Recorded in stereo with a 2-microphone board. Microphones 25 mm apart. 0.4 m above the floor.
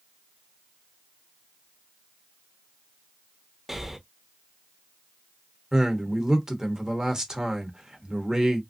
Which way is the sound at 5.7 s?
25° right (ahead or behind).